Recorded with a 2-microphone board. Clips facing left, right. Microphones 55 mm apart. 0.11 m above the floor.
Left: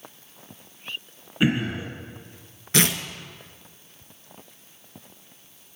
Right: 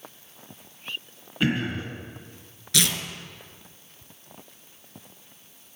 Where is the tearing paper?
35° left (ahead or behind), 1.0 m.